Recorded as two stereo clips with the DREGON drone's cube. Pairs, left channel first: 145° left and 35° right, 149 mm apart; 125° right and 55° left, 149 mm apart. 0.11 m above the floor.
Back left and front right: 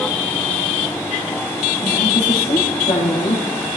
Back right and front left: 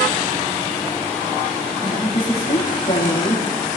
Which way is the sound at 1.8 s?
175° right.